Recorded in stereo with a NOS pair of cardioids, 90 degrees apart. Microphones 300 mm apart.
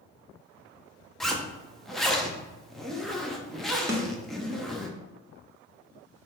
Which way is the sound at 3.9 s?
10° right.